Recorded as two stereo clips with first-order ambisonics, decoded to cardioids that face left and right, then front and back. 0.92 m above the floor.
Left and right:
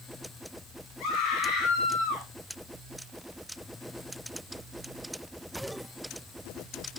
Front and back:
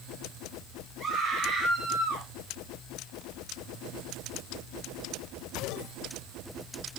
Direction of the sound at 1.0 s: 115° left.